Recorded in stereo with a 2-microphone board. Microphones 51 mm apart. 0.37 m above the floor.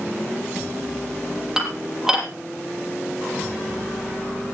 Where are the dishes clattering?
10° right (ahead or behind), 7 m.